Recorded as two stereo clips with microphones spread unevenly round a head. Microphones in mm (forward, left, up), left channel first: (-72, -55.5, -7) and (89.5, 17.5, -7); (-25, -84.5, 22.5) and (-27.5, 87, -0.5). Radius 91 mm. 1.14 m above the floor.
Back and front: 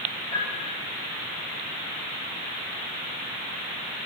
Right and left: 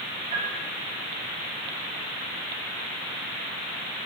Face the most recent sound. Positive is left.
turn(degrees=140)